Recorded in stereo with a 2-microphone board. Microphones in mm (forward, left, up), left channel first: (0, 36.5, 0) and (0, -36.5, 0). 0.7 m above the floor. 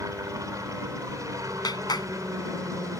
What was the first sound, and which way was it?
A helicopter, 50° right (ahead or behind).